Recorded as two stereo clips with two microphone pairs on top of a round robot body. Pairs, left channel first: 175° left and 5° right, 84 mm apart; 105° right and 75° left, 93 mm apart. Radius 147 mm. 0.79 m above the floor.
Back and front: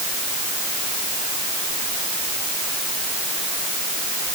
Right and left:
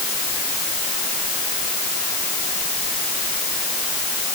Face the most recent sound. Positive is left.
No sound to turn to.